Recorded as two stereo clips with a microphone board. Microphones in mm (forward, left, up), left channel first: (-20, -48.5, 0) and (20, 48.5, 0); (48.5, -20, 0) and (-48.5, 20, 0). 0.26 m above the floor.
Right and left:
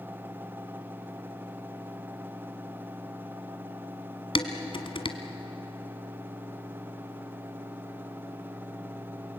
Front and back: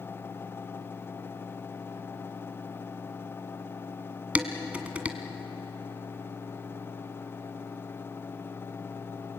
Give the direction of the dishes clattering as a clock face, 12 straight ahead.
4 o'clock.